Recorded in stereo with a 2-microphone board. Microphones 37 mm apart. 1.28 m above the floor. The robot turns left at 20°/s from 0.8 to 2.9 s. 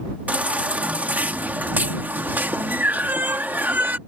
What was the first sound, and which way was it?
A baby crying, 55° right.